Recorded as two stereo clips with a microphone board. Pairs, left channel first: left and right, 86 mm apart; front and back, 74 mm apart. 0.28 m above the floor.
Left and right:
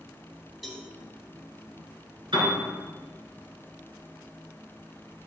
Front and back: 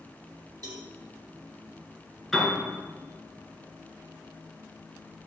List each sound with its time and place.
0.6 s a cowbell: straight behind, 1.6 m
2.3 s a piano: 90° right, 3.5 m